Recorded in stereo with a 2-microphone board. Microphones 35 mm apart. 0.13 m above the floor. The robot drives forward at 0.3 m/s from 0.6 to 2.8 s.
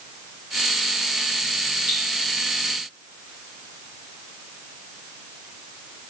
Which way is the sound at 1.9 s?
20° right (ahead or behind).